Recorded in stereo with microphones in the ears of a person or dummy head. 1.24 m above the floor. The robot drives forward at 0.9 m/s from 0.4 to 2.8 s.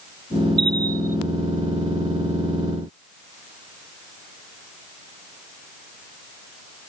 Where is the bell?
65° right (ahead or behind); by 1.2 s 50° right (ahead or behind).